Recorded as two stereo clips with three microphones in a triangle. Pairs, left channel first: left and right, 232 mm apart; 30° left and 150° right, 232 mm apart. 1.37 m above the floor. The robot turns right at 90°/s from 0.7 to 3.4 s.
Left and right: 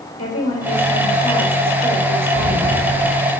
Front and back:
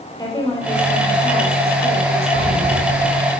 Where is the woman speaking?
105° left, 2.5 m; by 2.9 s 60° right, 2.5 m.